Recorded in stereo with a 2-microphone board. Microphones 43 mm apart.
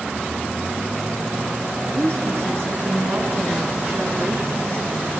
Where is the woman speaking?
65° right (ahead or behind), 3.5 m; by 4.9 s 60° right (ahead or behind), 3.5 m.